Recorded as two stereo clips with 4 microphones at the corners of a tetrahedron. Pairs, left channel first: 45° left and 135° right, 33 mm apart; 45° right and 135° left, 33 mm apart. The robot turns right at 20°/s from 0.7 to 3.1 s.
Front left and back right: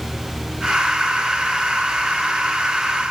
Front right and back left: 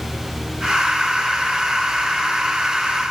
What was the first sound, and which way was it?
Only background noise.